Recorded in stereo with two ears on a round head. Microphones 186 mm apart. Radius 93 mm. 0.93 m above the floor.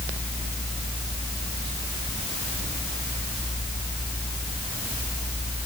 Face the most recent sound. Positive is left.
No sound to turn to.